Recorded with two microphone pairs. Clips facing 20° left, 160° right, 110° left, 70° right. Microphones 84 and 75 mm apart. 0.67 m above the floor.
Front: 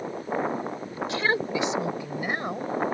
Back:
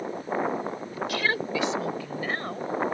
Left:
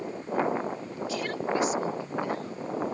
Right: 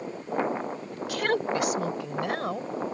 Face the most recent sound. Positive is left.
turn(degrees=-60)